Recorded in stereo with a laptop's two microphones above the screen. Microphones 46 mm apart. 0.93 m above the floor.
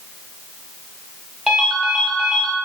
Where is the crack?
No crack in this recording.